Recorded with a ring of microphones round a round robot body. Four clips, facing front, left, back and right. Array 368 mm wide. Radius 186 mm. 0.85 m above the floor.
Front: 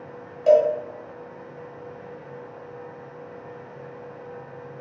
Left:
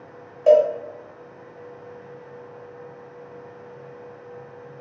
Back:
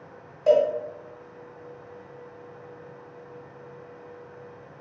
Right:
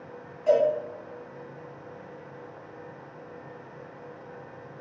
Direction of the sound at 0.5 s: 80° left.